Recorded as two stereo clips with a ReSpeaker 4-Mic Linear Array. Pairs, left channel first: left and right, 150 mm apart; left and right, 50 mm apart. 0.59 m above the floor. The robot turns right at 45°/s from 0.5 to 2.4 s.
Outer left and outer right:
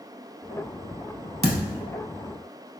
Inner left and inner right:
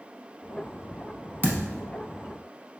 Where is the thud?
45° right (ahead or behind), 0.6 m; by 1.8 s 35° right (ahead or behind), 0.6 m.